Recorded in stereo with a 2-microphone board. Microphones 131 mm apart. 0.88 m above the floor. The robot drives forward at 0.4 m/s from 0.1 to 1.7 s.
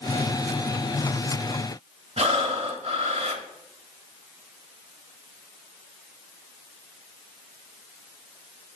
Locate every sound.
2.2 s breathing: 50° right (ahead or behind), 1.1 m